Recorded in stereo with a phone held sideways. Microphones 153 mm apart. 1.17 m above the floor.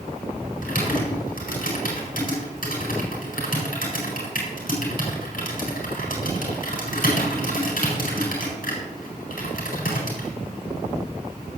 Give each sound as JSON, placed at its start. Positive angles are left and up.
{"t": 0.6, "sound": "typing on a keyboard", "side_deg": 65, "distance_m": 4.5}